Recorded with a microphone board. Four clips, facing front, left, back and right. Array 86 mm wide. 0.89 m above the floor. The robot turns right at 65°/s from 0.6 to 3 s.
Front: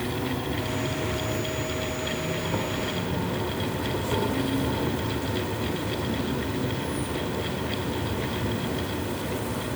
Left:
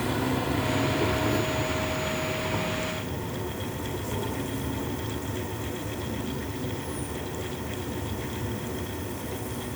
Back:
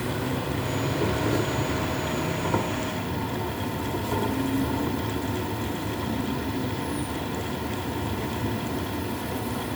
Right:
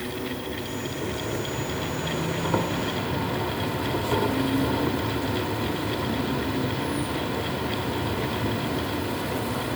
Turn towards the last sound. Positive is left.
turn(degrees=-80)